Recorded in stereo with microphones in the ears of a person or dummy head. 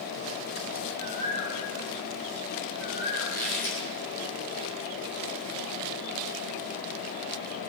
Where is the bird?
30° left (ahead or behind), 4.5 m.